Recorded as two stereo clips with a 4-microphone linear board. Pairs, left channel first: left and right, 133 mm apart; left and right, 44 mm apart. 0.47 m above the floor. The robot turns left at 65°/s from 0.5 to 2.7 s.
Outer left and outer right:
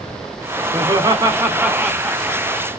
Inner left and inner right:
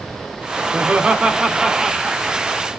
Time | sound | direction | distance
0.7 | laughter | 35° right (ahead or behind) | 0.9 m